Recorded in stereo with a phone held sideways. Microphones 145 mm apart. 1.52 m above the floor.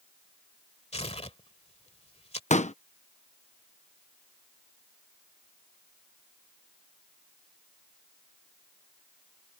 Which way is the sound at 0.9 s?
45° left (ahead or behind).